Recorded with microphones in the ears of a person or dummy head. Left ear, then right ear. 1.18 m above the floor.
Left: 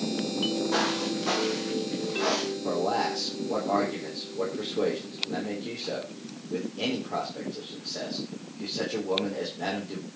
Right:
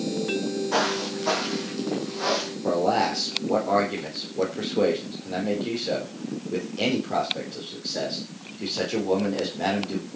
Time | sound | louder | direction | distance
0.7 | footsteps | right 2 dB | 10° right (ahead or behind) | 4 m
2.6 | a man speaking | right 6 dB | 20° right (ahead or behind) | 4 m